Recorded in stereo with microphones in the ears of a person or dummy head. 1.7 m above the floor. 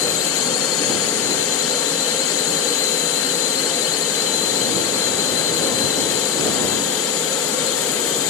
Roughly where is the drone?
Left.